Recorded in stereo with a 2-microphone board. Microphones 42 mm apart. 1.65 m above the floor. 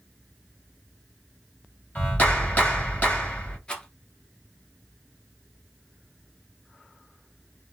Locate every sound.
1.9 s a clap: 40° left (ahead or behind), 1.3 m
3.7 s a rattle: 25° left (ahead or behind), 1.0 m